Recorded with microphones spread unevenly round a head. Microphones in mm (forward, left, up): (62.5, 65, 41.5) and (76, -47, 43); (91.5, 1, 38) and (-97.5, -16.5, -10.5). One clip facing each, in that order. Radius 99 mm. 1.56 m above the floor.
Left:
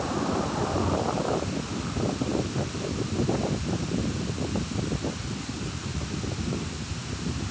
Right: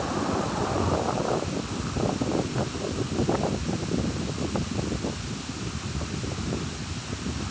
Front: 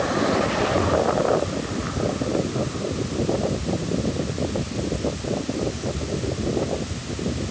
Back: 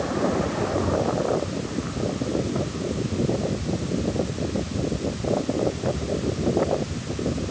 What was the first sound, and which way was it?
Only background noise.